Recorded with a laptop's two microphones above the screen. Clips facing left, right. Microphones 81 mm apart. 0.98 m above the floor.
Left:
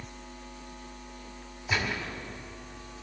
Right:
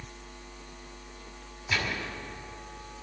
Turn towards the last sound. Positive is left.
turn(degrees=20)  # may be behind; listen again after turning